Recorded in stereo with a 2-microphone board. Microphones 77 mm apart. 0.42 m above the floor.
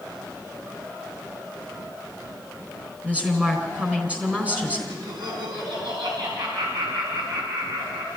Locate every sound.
3.0 s a woman speaking: 15° right (ahead or behind), 4 m
4.9 s laughter: 70° right (ahead or behind), 4.5 m